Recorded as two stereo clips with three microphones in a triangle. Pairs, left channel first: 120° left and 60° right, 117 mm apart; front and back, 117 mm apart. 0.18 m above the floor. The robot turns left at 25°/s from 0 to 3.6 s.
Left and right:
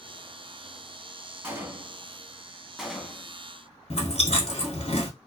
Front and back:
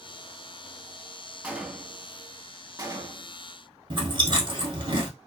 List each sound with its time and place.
1.4 s a gunshot: 110° right, 0.6 m; by 3.4 s 160° right, 0.6 m
3.9 s chewing: 135° left, 1.0 m